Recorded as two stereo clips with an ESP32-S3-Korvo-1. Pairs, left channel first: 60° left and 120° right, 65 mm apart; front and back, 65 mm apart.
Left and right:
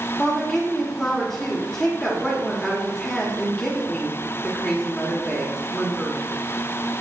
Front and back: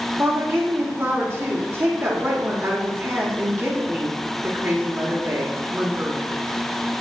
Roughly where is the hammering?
I don't hear hammering.